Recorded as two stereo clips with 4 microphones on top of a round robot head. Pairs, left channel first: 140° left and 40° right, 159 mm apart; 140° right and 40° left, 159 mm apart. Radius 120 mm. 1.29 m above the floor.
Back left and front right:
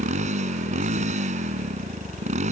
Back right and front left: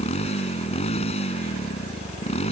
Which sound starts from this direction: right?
A motorcycle, at 0.0 s.